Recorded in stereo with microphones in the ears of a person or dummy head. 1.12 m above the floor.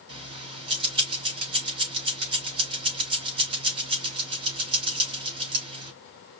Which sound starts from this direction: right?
Keys jangling, at 0.1 s.